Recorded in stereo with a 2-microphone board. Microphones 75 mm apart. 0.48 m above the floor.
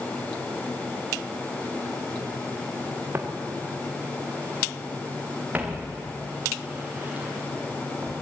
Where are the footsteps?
30° right (ahead or behind), 3.5 m; by 8.1 s 20° right (ahead or behind), 9 m.